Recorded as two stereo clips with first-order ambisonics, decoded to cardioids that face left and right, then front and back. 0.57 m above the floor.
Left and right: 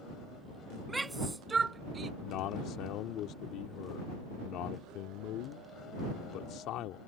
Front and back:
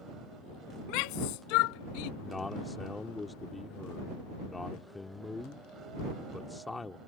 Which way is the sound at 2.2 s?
75° left.